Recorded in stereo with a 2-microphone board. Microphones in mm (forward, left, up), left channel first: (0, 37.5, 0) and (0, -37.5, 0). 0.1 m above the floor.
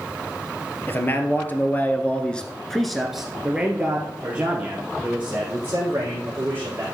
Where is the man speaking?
30° left (ahead or behind), 1.7 m; by 6.8 s 25° right (ahead or behind), 4 m.